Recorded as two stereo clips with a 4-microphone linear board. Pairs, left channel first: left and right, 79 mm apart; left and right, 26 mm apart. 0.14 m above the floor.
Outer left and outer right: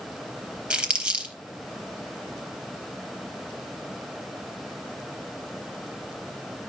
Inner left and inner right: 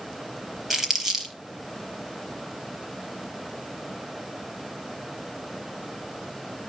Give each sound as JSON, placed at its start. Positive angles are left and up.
{"t": 0.7, "sound": "crumpling", "side_deg": -15, "distance_m": 4.0}